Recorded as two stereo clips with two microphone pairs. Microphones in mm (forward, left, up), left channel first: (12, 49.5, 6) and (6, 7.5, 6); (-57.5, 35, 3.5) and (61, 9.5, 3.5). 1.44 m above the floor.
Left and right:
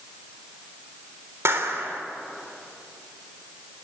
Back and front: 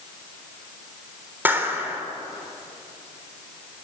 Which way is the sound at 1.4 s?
85° right.